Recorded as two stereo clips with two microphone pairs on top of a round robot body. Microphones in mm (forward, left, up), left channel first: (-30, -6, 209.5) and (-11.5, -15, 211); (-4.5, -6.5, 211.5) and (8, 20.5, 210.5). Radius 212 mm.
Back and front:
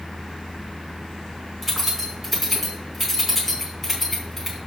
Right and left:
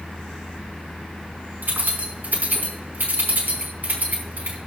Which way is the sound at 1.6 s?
65° left.